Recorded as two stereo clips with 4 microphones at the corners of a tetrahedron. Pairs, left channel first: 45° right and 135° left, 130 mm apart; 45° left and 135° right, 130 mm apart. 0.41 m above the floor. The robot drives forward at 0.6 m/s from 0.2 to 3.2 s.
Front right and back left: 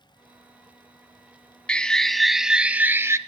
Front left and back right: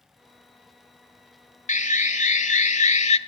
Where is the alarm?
35° left, 1.6 m; by 3.2 s 70° left, 1.1 m.